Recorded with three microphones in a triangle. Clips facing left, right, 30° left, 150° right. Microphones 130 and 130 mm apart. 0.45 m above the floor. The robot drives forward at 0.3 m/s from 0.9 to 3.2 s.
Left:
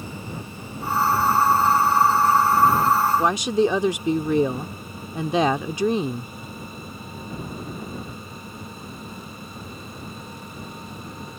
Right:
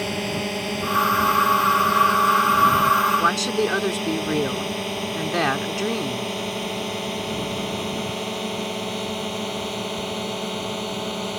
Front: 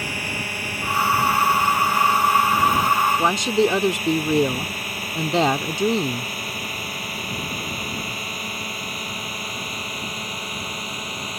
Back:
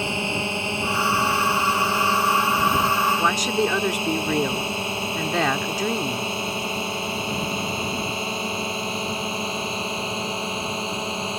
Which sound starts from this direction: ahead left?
A woman speaking, at 3.2 s.